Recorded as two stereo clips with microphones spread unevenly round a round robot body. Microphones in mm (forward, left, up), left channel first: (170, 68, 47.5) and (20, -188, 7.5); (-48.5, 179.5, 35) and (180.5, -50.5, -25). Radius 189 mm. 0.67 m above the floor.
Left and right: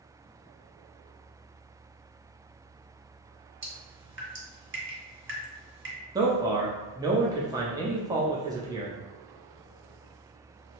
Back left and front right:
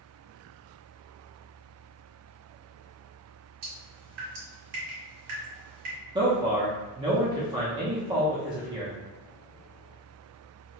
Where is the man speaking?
75° right, 0.5 m.